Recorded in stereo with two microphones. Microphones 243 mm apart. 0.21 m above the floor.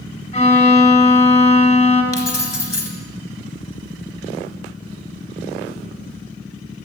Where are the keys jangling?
70° left (ahead or behind), 2.0 m.